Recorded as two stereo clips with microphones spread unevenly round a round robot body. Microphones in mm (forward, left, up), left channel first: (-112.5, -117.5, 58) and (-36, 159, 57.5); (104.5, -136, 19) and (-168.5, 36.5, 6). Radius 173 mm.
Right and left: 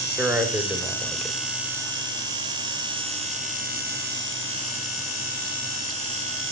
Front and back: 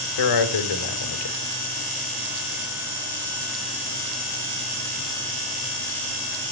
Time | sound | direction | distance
0.2 | a man speaking | 10° right | 2.5 m